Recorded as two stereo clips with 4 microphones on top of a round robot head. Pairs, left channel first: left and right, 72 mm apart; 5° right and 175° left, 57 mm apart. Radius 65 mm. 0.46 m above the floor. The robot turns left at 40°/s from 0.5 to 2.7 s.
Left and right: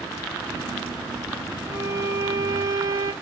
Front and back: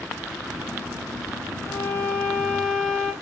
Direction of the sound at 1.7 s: 40° right.